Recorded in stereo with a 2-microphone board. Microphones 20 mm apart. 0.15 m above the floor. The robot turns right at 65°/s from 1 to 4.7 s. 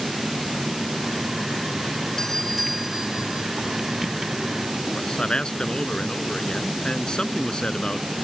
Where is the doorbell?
150° left; by 3.5 s 125° right.